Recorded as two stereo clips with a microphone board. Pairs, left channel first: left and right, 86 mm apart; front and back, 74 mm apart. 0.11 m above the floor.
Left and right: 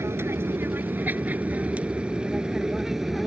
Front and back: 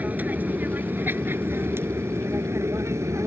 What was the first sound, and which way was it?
An aircraft, 125° right.